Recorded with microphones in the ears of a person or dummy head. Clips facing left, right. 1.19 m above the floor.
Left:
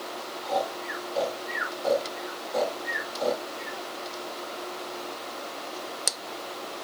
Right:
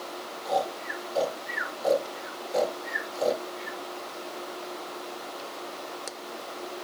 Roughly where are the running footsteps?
No running footsteps in this recording.